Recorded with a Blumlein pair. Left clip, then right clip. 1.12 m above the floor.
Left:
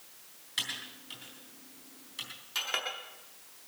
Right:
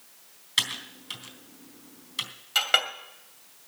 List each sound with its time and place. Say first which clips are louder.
0.6 s typing on a keyboard: right 8 dB; 70° right, 3.5 m
2.5 s a clink: right 10 dB; 65° right, 2 m